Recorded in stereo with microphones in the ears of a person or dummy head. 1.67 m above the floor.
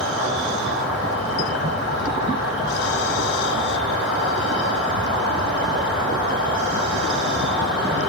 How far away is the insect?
About 3 m.